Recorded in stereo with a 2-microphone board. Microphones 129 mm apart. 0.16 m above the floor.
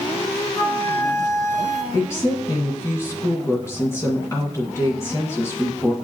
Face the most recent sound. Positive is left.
turn(degrees=20)  # may be behind; listen again after turning